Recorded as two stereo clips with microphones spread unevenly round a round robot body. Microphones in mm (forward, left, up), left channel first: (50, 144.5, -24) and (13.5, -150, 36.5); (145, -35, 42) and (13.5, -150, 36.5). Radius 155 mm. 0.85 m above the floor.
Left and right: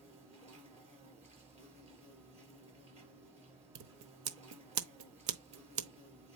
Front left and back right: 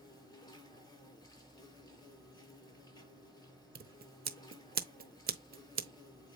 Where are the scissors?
110° right, 1.0 m.